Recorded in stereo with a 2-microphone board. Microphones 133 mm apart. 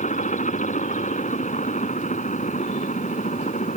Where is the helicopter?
65° left (ahead or behind).